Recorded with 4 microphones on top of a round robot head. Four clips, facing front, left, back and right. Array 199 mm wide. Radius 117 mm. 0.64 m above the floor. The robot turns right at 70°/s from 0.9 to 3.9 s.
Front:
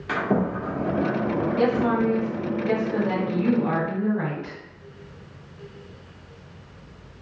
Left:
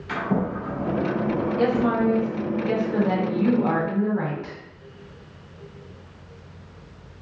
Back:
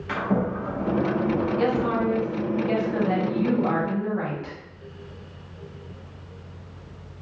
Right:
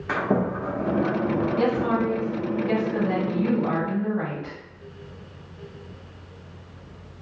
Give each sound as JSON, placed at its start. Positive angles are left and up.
{"t": 0.1, "sound": "a sliding door", "azimuth_deg": -65, "distance_m": 1.3}
{"t": 1.6, "sound": "a woman speaking", "azimuth_deg": -50, "distance_m": 1.8}